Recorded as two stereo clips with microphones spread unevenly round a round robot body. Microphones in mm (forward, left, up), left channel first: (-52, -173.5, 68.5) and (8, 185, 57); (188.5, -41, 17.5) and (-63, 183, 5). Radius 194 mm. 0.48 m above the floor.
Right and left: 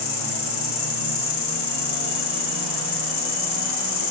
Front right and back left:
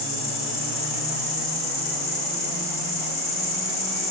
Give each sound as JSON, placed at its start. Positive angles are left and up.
{"t": 0.0, "sound": "an insect", "azimuth_deg": -105, "distance_m": 2.5}